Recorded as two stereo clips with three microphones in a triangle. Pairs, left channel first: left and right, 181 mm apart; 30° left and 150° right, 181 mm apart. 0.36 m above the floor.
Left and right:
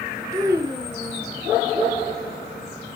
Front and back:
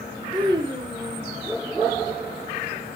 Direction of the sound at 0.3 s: 135° right.